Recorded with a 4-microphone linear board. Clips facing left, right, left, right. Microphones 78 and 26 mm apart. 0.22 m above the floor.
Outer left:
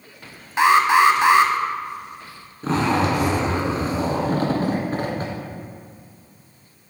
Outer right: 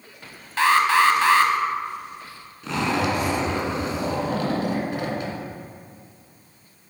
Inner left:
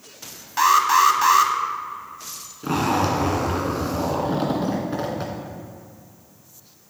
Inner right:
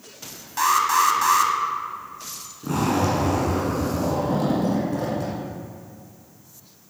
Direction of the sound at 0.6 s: 20° left (ahead or behind).